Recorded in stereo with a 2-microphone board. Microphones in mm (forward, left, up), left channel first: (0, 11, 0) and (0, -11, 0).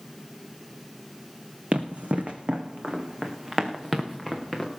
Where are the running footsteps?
80° right, 1.8 m; by 4.7 s 10° right (ahead or behind), 3 m.